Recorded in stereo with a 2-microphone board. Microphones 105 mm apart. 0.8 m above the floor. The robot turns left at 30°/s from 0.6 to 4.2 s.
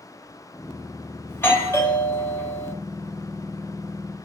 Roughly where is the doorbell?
Centre.